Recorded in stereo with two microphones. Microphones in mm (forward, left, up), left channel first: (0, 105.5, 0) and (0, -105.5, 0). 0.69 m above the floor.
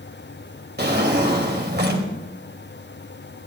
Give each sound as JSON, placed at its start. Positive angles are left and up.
{"t": 0.8, "sound": "a drawer", "side_deg": -50, "distance_m": 2.0}